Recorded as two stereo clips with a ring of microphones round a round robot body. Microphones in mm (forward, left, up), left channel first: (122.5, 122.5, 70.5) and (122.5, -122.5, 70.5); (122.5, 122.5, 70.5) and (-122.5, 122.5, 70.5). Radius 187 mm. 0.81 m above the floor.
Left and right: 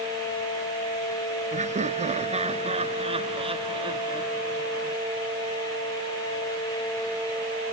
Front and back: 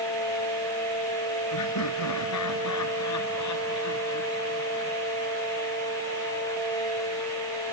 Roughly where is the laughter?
Ahead right.